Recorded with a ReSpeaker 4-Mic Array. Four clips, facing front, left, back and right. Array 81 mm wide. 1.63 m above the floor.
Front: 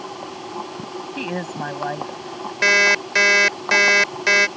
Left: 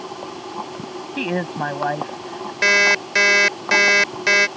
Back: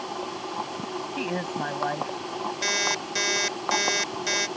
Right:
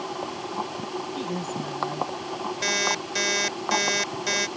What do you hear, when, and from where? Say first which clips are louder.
1.2 s a woman speaking: left 12 dB, front 3 dB; 80° left; by 2.5 s 85° left
2.6 s an alarm clock: left 12 dB, front 16 dB; 45° left